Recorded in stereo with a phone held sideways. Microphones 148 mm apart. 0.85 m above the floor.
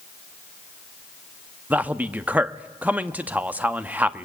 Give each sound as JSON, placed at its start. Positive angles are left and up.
{"t": 1.7, "sound": "a man speaking", "side_deg": -10, "distance_m": 0.9}